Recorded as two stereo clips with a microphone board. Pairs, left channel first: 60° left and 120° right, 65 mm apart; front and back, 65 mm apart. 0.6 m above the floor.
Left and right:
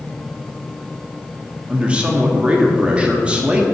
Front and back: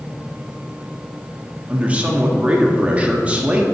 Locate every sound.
1.7 s a man speaking: 155° right, 1.0 m